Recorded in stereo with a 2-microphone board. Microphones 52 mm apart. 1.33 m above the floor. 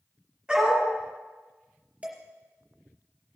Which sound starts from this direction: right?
Dishes clattering, at 2.0 s.